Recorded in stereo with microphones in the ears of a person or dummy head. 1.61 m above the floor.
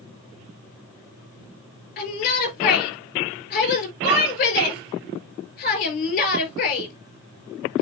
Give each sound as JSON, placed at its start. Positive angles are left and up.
{"t": 2.0, "sound": "a shout", "side_deg": 45, "distance_m": 4.5}